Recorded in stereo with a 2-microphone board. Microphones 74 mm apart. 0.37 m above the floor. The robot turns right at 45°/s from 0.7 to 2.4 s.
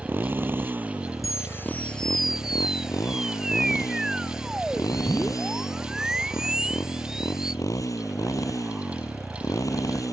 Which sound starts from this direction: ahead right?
A motorcycle, at 0.0 s.